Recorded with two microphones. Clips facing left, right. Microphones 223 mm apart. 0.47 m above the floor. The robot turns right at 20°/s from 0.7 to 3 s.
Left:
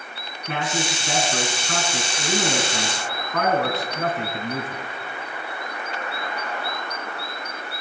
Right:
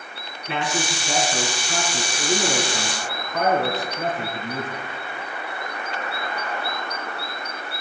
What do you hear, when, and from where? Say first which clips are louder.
0.5 s a man speaking: even; 50° left, 4 m; by 4.8 s 100° left, 4 m